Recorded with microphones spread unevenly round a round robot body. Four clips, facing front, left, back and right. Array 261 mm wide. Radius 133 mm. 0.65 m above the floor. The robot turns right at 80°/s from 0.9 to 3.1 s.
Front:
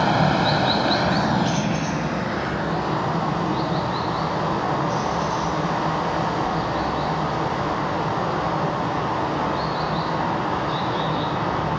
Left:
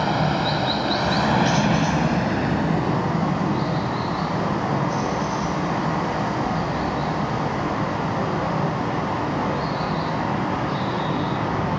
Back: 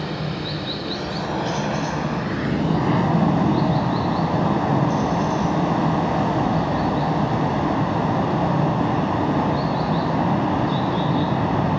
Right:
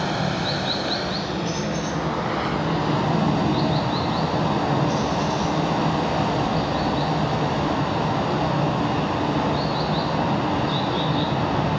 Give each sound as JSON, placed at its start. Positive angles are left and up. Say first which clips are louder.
{"t": 0.0, "sound": "running water", "louder": "left 3 dB, front 9 dB", "azimuth_deg": 10, "distance_m": 1.1}